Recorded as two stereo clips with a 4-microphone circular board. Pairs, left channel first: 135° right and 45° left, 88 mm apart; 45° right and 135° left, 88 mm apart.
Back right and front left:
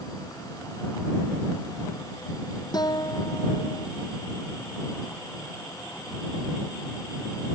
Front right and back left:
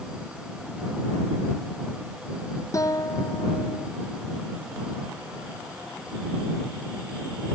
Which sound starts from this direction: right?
A guitar, at 2.7 s.